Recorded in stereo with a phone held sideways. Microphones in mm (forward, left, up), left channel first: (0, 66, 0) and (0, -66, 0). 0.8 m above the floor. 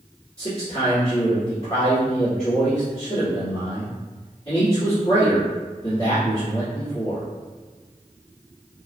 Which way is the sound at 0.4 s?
40° left (ahead or behind).